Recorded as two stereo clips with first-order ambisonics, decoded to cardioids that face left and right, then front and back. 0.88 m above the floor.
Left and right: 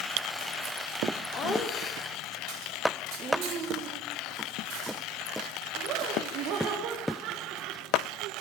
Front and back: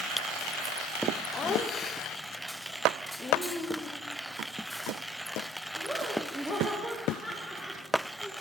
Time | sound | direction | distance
1.3 | laughter | 55° left | 1.2 m